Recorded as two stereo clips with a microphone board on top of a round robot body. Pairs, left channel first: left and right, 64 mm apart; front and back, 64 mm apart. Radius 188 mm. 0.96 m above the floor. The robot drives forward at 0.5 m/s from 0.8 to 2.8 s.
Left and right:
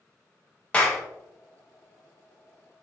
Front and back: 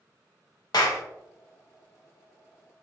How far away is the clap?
About 0.8 m.